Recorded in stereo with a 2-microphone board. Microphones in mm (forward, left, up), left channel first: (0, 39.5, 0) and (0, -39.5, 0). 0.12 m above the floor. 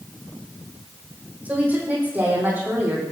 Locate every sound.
1.4 s a woman speaking: 20° right (ahead or behind), 6 m; by 3.0 s 30° right (ahead or behind), 6.5 m